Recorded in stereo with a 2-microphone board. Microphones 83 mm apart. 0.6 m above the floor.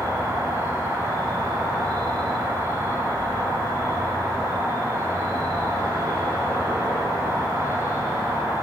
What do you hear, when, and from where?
0.0 s an insect: 35° right (ahead or behind), 0.8 m